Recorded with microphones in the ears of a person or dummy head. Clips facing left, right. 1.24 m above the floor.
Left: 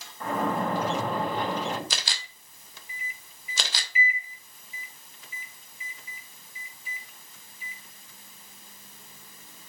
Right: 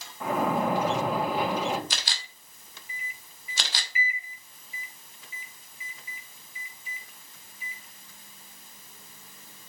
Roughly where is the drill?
No drill in this recording.